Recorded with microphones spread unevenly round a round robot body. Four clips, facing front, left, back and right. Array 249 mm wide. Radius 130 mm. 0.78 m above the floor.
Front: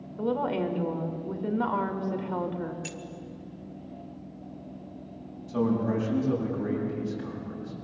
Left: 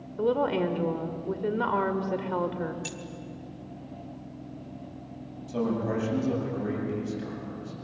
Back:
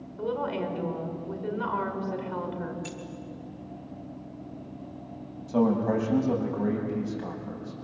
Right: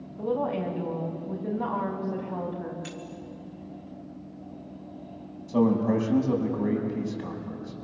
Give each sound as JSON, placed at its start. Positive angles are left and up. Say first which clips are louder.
{"t": 0.2, "sound": "a woman speaking", "louder": "left 3 dB, front 2 dB", "azimuth_deg": 70, "distance_m": 2.5}
{"t": 2.8, "sound": "keys jangling", "louder": "right 1 dB, back 1 dB", "azimuth_deg": 20, "distance_m": 0.8}
{"t": 5.5, "sound": "a man speaking", "louder": "right 6 dB, back 2 dB", "azimuth_deg": -170, "distance_m": 6.0}